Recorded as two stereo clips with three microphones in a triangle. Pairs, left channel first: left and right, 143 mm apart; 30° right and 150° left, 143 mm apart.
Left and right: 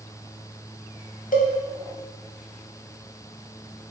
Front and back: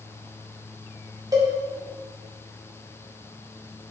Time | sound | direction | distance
1.3 | a cowbell | 90° left | 0.6 m